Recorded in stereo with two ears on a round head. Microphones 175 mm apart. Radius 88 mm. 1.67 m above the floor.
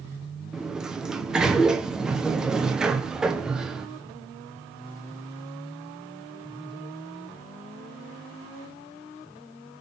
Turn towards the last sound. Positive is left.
turn(degrees=-5)  # may be behind; listen again after turning